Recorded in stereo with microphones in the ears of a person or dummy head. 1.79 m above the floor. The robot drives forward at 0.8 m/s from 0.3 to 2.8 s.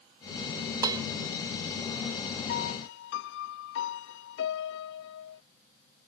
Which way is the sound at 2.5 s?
50° left (ahead or behind).